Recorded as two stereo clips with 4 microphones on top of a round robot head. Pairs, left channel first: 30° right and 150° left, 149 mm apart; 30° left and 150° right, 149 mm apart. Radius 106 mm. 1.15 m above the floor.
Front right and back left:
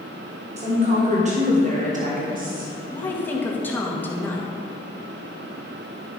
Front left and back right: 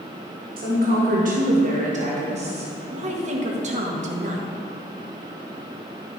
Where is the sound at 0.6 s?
170° right, 2.5 m; by 2.7 s 165° left, 1.6 m.